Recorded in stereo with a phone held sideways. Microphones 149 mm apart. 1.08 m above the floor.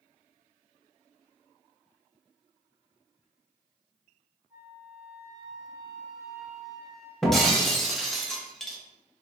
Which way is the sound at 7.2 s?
Centre (ahead or behind).